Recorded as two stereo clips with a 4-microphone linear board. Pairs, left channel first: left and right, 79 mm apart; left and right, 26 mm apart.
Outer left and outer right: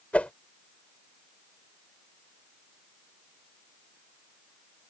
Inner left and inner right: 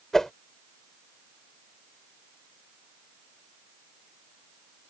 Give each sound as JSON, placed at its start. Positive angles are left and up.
{"t": 0.1, "sound": "a whoosh", "side_deg": 20}